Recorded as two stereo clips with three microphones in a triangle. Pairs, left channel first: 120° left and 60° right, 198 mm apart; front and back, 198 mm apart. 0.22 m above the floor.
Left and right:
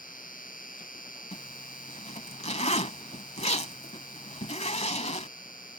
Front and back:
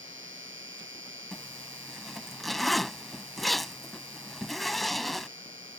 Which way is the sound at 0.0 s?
165° left.